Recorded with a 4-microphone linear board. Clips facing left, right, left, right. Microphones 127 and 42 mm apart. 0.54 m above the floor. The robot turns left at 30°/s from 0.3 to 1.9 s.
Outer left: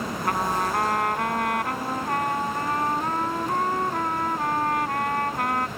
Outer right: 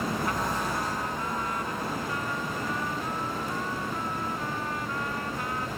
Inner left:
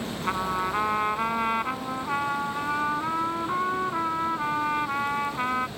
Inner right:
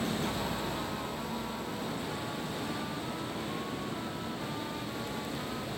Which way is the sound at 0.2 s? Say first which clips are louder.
Outer left 4 dB, inner left 7 dB; 120° left.